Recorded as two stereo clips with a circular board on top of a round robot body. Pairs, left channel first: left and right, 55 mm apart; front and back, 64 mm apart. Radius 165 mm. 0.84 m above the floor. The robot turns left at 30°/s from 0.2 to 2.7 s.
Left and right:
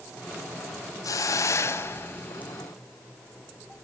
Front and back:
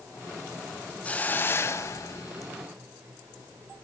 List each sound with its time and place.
1.0 s a hiss: 70° left, 0.6 m; by 2.5 s 25° left, 0.6 m